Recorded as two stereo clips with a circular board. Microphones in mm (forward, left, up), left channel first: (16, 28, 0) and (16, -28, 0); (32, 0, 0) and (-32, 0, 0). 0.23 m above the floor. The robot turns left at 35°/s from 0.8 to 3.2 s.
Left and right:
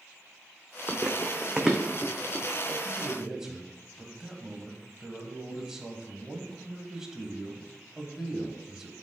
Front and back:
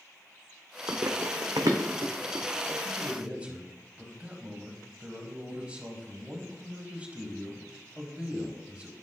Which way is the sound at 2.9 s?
140° right.